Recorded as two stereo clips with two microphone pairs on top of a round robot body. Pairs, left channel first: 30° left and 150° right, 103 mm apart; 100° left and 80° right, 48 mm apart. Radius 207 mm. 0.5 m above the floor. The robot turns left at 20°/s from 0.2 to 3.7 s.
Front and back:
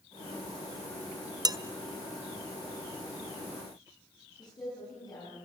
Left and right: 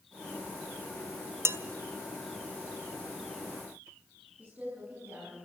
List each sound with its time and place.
1.4 s dishes clattering: 105° right, 1.1 m
4.4 s a woman speaking: 25° right, 7.5 m